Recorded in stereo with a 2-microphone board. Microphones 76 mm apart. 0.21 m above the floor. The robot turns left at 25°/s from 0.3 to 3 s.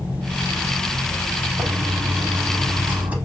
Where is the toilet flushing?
25° right (ahead or behind), 0.8 m; by 3.1 s 20° right (ahead or behind), 0.8 m.